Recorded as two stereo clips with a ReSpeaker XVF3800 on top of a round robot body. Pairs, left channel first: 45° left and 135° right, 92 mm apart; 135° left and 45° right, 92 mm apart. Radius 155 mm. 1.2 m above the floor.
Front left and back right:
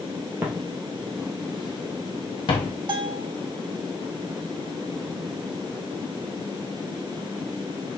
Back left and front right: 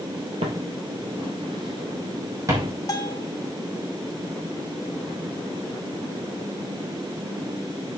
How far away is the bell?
About 1.5 m.